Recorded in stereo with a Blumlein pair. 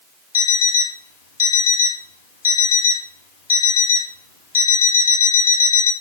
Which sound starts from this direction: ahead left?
An alarm clock, at 0.3 s.